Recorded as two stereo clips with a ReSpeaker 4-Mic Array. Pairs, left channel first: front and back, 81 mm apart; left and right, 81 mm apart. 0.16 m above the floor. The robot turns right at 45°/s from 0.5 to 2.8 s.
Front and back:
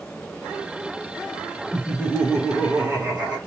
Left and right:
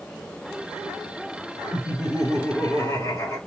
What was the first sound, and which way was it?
Laughter, 70° left.